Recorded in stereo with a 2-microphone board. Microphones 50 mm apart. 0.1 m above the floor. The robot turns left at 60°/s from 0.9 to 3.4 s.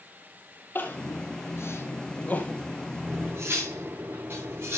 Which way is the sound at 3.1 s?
30° right (ahead or behind).